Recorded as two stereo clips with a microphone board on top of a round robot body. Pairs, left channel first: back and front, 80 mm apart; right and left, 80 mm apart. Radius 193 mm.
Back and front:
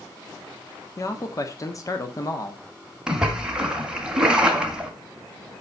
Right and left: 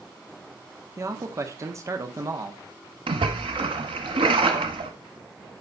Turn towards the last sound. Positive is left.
turn(degrees=80)